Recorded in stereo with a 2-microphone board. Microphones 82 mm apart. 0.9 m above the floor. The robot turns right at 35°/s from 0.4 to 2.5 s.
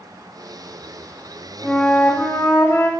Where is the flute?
Straight ahead, 4.5 m; by 2.9 s 35° left, 4.5 m.